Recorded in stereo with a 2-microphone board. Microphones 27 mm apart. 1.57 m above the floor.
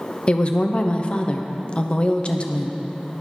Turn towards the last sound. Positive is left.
turn(degrees=40)  # may be behind; listen again after turning